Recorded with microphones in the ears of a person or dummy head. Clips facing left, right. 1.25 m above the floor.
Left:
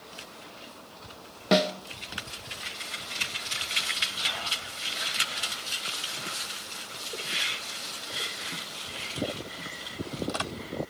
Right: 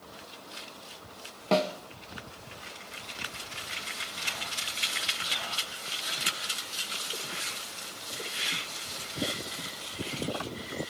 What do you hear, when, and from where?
1.5 s a snare drum: 20° left (ahead or behind), 0.8 m